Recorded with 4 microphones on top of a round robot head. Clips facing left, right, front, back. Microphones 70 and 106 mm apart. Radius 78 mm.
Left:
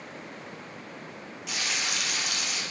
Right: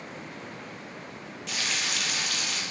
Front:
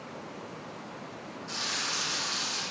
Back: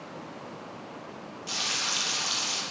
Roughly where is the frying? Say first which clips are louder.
Even, back 2 dB; behind.